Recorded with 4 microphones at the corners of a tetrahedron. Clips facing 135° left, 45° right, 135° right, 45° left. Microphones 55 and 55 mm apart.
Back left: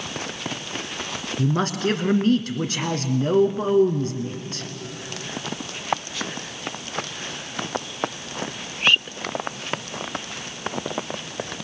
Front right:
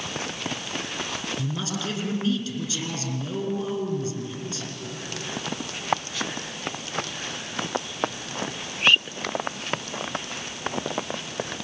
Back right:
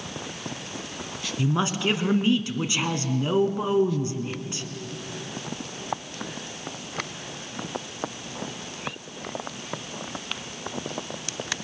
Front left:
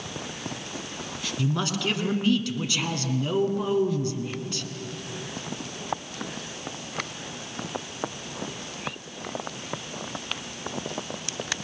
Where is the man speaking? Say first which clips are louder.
Back left 7 dB, back right 3 dB; 160° left, 2 m.